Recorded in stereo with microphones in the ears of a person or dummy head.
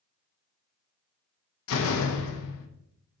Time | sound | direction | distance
1.7 | a door slam | 70° left (ahead or behind) | 1.0 m